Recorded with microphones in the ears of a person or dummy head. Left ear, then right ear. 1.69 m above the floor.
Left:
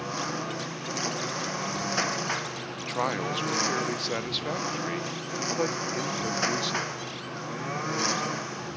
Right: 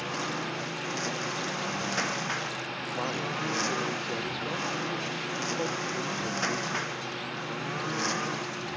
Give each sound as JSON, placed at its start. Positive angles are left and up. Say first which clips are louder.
{"t": 0.0, "sound": "a lawn mower", "louder": "even", "side_deg": 20}
{"t": 2.8, "sound": "a man speaking", "louder": "left 6 dB", "side_deg": 50}